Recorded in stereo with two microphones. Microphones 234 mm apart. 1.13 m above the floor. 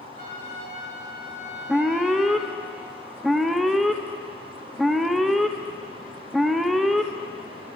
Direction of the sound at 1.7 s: Centre (ahead or behind).